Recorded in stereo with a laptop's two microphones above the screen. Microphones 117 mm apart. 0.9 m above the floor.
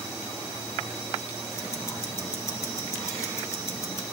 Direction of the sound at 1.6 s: 25° left (ahead or behind).